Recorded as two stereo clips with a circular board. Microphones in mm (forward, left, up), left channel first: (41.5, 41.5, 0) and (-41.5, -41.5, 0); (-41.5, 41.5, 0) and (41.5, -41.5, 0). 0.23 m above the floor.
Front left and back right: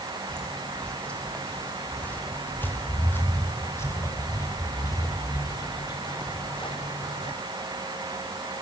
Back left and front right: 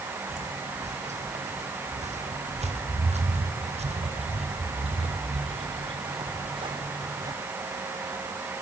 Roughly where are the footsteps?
Ahead right.